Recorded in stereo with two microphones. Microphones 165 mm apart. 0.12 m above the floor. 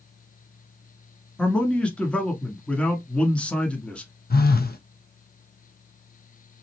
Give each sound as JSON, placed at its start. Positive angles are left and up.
{"t": 1.4, "sound": "a man speaking", "side_deg": 5, "distance_m": 1.3}
{"t": 4.3, "sound": "a phone buzzing", "side_deg": 70, "distance_m": 0.7}